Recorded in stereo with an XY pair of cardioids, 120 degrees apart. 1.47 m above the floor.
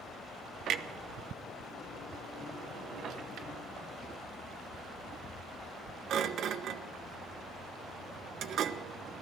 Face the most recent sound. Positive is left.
turn(degrees=-60)